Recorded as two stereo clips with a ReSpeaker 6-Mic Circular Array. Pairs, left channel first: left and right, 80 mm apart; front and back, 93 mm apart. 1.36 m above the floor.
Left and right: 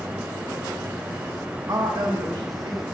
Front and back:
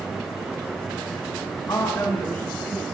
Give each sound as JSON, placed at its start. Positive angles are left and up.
{"t": 1.7, "sound": "a woman speaking", "azimuth_deg": -45, "distance_m": 1.2}